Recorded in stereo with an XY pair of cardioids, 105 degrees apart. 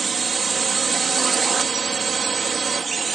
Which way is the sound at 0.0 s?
40° right.